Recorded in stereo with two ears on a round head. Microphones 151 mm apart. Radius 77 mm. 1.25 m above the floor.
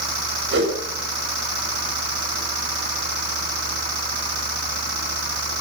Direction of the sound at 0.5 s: 80° right.